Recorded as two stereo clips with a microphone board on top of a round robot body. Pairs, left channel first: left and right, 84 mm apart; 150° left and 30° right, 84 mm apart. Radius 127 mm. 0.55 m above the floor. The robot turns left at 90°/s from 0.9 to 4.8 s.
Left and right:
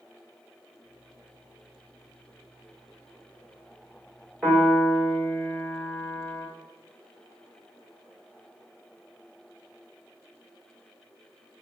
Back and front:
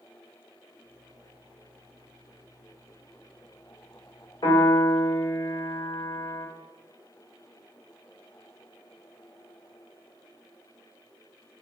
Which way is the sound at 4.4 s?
175° right.